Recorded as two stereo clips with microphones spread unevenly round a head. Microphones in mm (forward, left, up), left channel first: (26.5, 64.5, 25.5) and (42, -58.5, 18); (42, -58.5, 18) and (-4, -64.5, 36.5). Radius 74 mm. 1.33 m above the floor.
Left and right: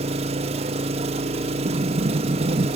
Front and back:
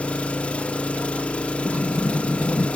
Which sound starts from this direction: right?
An engine running, at 0.0 s.